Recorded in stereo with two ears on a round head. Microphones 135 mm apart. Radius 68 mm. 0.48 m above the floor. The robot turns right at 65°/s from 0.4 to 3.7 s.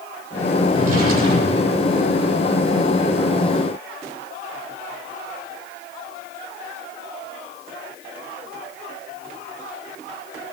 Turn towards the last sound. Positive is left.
turn(degrees=65)